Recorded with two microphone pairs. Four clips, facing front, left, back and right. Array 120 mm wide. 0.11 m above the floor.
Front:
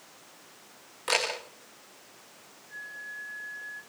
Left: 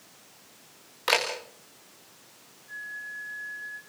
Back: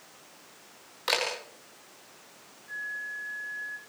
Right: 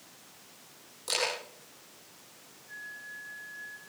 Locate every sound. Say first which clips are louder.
1.1 s a camera shutter: left 7 dB, front 1 dB; 115° left, 10 m
2.7 s a flute: left 6 dB, back 5 dB; 160° left, 9 m